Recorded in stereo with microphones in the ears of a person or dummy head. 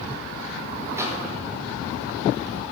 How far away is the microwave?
About 1.2 m.